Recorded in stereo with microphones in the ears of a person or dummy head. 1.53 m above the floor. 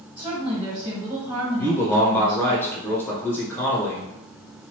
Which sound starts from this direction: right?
A woman speaking, at 0.2 s.